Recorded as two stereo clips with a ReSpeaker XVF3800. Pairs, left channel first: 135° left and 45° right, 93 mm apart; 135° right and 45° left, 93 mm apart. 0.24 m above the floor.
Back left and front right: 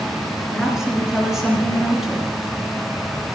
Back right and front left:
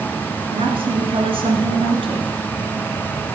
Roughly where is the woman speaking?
Ahead left.